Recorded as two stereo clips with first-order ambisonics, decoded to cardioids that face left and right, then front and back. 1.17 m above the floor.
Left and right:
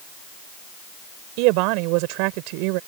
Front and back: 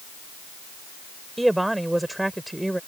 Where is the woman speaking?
95° right.